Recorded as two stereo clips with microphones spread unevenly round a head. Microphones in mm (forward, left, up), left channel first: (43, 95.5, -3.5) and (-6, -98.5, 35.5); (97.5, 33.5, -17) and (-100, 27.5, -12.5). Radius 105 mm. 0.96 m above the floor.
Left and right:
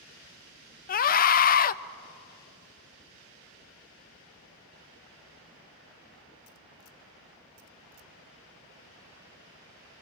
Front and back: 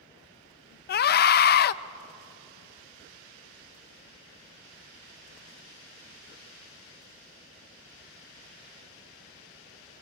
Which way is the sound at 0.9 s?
40° left.